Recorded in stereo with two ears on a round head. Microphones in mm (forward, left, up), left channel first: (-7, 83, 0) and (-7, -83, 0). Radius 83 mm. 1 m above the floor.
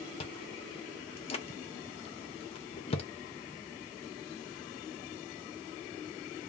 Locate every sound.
0.2 s chewing: 35° left (ahead or behind), 0.6 m